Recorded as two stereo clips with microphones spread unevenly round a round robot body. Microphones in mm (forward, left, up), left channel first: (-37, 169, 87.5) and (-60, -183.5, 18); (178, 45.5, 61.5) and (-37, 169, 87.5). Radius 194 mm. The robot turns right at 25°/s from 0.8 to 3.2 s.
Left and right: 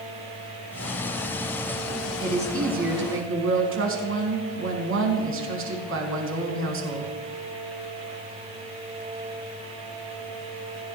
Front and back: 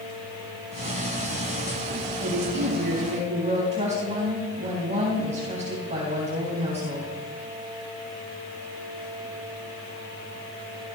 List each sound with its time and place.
2.2 s a woman speaking: 165° right, 4 m; by 7.1 s 140° right, 4 m